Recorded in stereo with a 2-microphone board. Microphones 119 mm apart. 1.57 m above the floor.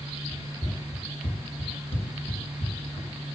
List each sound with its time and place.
0.3 s running footsteps: 20° left (ahead or behind), 3 m; by 3.1 s 65° left (ahead or behind), 5 m